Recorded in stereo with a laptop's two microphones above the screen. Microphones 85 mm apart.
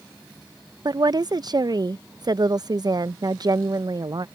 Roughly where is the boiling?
I don't hear boiling.